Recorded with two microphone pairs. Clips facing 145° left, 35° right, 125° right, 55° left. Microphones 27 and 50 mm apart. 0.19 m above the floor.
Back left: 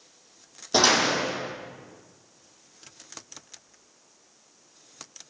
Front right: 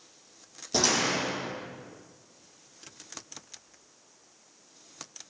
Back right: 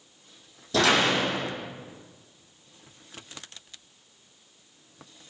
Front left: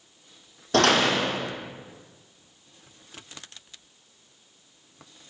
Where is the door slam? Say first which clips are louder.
Back left 5 dB, front left 2 dB; 90° left, 5 m.